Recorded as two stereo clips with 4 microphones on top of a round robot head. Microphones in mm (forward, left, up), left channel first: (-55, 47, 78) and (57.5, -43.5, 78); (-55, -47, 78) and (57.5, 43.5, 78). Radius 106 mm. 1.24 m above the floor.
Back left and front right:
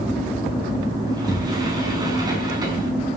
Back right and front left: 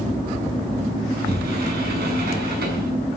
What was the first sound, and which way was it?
A sliding door, 25° left.